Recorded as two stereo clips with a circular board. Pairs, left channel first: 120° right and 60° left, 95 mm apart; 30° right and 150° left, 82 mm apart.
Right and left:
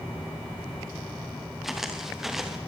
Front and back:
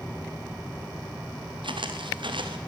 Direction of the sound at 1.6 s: 150° left.